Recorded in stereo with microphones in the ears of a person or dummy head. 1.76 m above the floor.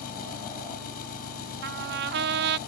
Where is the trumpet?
60° right (ahead or behind).